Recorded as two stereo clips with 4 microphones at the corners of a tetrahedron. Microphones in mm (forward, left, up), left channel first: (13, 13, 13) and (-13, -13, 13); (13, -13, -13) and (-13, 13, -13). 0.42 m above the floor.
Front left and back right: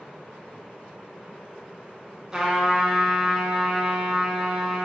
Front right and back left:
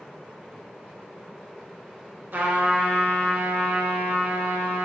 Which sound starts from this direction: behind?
A trumpet, at 2.3 s.